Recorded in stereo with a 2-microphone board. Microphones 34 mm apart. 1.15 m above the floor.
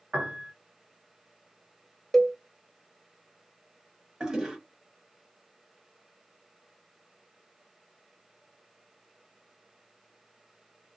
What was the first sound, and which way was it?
A piano, 50° right (ahead or behind).